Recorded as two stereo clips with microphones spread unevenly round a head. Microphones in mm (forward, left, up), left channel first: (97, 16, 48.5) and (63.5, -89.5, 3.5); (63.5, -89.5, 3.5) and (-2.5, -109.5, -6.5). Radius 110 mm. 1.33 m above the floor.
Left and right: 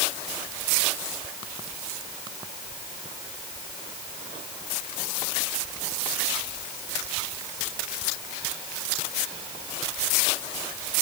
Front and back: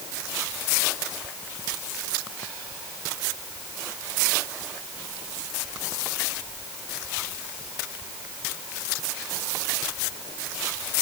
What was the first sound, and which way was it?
Only background noise.